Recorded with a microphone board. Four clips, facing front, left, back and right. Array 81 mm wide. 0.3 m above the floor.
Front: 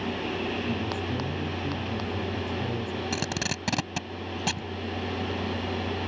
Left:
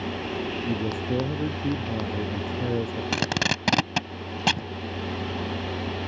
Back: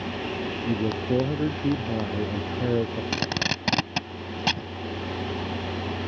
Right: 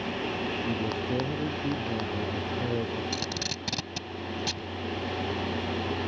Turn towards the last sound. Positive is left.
turn(degrees=110)